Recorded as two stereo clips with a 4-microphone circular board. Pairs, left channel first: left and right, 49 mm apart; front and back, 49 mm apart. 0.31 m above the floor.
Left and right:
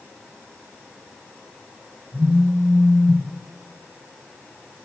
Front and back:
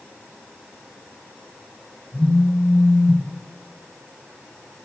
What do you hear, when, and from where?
2.1 s a phone buzzing: 65° right, 2.0 m